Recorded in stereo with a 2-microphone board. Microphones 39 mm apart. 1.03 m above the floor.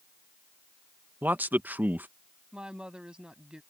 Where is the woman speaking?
25° right (ahead or behind).